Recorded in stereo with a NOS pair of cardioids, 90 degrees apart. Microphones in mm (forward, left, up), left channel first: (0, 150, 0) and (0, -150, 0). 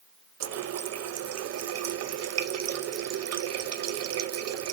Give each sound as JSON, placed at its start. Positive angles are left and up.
{"t": 0.4, "sound": "a running tap", "azimuth_deg": -60, "distance_m": 0.9}